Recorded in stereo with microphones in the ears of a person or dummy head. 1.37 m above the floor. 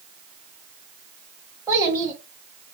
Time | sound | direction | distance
1.7 | a child speaking | 15° right (ahead or behind) | 0.9 m